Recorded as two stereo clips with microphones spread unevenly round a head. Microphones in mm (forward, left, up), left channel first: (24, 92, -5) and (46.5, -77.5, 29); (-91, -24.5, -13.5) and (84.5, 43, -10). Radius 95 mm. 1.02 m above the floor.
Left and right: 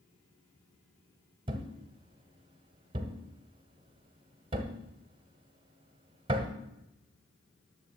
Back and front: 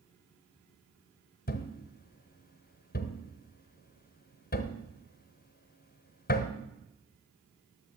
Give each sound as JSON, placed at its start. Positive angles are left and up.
{"t": 1.5, "sound": "a thud", "azimuth_deg": -130, "distance_m": 1.2}